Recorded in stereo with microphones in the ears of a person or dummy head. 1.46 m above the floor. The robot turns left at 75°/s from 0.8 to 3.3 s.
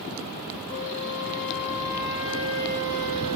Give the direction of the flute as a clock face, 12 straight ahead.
9 o'clock.